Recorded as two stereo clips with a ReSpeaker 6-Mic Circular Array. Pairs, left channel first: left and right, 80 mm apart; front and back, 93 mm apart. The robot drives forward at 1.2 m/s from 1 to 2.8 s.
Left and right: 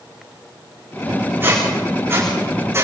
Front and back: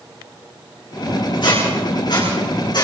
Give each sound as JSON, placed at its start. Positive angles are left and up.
{"t": 1.4, "sound": "a squeak", "azimuth_deg": -30, "distance_m": 10.0}